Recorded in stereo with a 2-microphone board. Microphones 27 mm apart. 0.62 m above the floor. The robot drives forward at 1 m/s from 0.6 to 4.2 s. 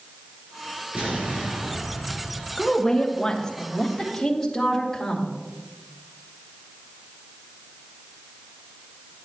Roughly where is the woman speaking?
Left.